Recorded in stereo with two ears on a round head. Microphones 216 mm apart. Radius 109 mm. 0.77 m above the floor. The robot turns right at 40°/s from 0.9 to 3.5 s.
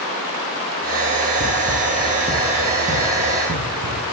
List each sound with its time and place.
1.4 s running footsteps: 35° left (ahead or behind), 1.0 m; by 4.1 s 40° right (ahead or behind), 2.5 m